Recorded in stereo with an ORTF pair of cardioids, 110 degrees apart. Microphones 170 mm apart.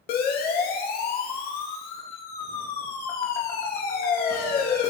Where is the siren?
60° left, 3 m.